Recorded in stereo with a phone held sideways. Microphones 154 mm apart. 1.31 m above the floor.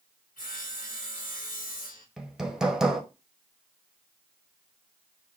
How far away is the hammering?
About 0.9 m.